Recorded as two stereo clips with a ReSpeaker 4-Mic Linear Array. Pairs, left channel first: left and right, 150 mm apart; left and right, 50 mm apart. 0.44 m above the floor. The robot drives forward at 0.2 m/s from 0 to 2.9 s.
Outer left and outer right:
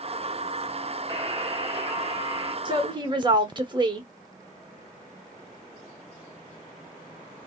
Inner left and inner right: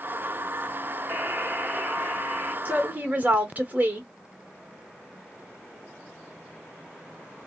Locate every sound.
1.1 s a buzzer: 35° right (ahead or behind), 1.0 m
2.6 s a woman speaking: 35° right (ahead or behind), 0.9 m; by 4.1 s 30° right (ahead or behind), 1.0 m